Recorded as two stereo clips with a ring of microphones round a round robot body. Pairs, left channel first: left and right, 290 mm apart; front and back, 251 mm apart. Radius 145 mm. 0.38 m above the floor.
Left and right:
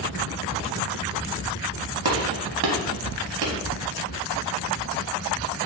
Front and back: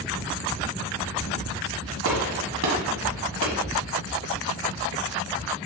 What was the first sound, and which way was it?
A gunshot, 135° right.